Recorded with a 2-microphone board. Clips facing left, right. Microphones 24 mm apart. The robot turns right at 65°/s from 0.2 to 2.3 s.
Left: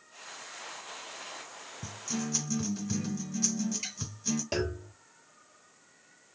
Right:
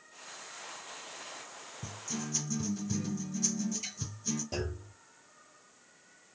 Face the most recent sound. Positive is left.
turn(degrees=60)  # may be behind; listen again after turning